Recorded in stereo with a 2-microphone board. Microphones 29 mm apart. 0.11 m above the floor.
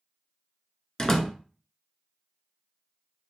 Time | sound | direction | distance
1.0 | a door slam | 20° left (ahead or behind) | 0.7 m